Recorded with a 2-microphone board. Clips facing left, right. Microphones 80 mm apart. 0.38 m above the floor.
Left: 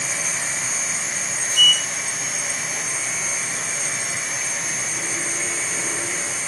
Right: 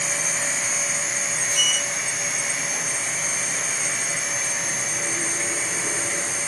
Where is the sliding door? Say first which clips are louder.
Left 8 dB; 5° right (ahead or behind), 0.9 m.